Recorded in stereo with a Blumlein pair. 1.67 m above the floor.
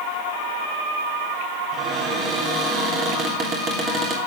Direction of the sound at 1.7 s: 25° right.